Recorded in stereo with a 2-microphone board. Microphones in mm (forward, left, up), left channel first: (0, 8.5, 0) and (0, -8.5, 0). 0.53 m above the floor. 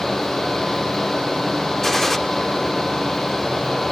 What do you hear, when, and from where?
1.8 s a gunshot: 20° left (ahead or behind), 0.9 m